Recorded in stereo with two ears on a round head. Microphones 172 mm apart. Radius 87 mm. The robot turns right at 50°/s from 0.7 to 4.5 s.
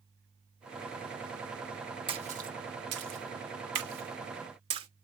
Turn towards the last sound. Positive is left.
turn(degrees=-25)  # may be behind; listen again after turning